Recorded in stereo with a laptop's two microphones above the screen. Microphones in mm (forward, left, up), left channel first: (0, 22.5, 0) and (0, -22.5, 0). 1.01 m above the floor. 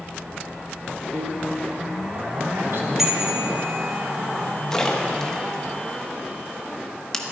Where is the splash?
10° left (ahead or behind), 1.0 m.